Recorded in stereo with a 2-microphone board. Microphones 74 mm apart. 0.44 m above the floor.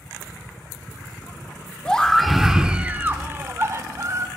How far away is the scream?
About 1.0 m.